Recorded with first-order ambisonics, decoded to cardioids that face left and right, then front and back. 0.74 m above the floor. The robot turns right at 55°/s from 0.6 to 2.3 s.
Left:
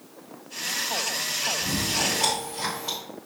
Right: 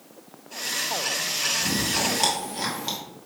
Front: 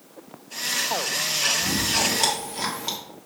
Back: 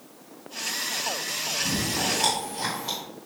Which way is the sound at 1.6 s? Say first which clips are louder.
Right 1 dB, front 4 dB; 70° right.